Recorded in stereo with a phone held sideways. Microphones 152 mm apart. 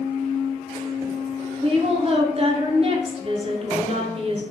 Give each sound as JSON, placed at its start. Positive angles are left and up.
{"t": 1.6, "sound": "a woman speaking", "side_deg": -40, "distance_m": 0.6}